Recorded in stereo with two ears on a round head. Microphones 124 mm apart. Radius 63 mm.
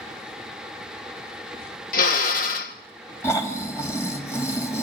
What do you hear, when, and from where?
1.9 s a drill: 70° left (ahead or behind), 2.0 m
3.2 s snoring: 20° left (ahead or behind), 2.5 m